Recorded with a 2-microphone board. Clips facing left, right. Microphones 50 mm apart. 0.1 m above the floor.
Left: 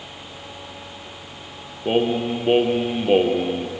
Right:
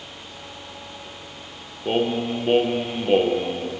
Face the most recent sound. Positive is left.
turn(degrees=10)  # may be behind; listen again after turning